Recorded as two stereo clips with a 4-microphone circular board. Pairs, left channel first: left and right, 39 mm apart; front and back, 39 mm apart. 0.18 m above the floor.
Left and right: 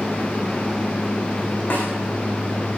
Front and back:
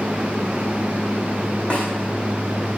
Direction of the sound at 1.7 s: 60° left.